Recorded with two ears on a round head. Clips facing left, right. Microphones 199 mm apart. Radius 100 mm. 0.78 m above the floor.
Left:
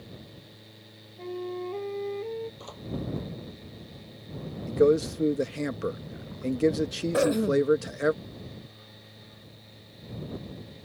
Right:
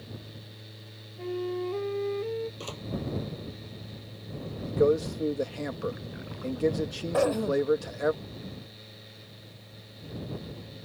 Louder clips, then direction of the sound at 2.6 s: Right 4 dB; 40° right (ahead or behind).